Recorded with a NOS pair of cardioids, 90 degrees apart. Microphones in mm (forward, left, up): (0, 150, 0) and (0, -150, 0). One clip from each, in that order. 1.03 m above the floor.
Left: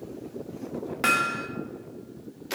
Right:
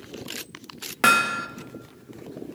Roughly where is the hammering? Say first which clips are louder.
Right 5 dB; ahead right.